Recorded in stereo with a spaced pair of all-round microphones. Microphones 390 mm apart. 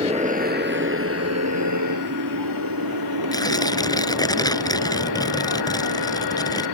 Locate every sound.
0.0 s a motorcycle: 15° right (ahead or behind); by 6.8 s 85° right
3.3 s tearing paper: 10° left (ahead or behind)